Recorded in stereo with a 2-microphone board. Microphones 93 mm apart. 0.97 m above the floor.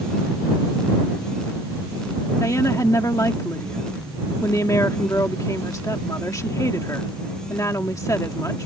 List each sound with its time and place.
2.4 s a woman speaking: 35° left (ahead or behind)